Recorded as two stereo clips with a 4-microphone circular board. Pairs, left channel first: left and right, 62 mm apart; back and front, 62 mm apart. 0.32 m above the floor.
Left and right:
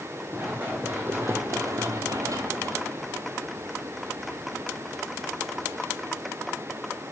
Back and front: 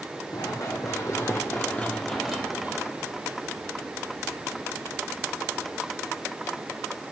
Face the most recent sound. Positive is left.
turn(degrees=-25)